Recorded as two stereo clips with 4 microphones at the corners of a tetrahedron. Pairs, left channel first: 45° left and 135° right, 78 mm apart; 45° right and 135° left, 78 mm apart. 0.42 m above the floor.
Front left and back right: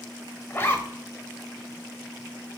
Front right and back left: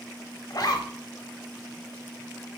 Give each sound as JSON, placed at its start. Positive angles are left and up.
{"t": 0.5, "sound": "a zipper", "azimuth_deg": -15, "distance_m": 0.8}